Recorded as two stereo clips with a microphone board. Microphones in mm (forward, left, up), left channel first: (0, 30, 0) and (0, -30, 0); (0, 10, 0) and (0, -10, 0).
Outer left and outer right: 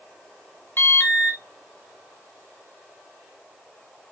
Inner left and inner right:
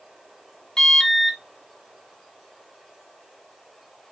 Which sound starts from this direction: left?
An alarm, at 0.8 s.